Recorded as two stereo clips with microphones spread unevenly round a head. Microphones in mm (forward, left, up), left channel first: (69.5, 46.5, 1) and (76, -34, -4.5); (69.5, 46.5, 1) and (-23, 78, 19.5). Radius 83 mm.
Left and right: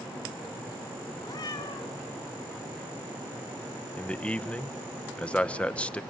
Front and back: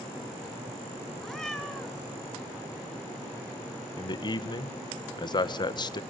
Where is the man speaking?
20° left, 1.3 m.